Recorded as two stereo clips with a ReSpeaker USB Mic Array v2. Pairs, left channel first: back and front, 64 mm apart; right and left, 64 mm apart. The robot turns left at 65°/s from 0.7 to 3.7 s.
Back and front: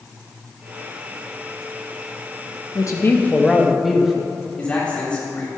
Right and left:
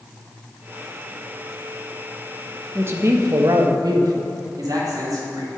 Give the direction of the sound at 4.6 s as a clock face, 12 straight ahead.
8 o'clock.